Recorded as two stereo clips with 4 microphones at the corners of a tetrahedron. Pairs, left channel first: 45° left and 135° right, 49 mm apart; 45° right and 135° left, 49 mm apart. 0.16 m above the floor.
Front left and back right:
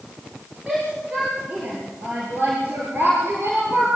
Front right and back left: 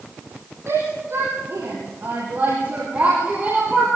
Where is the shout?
155° left, 5.5 m; by 3.9 s 160° right, 4.5 m.